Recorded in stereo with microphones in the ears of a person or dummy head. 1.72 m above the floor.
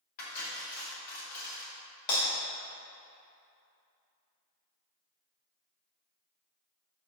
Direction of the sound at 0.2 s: 50° left (ahead or behind).